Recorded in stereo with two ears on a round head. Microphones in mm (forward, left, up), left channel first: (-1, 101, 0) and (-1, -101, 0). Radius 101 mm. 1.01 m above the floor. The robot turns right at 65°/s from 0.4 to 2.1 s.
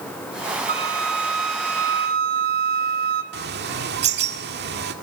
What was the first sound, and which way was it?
A flute, 140° right.